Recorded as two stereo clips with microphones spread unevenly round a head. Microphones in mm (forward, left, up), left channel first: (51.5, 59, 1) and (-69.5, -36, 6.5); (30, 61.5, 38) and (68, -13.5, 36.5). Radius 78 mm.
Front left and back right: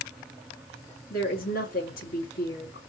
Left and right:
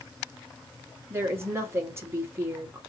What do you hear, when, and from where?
1.1 s a woman speaking: straight ahead, 2 m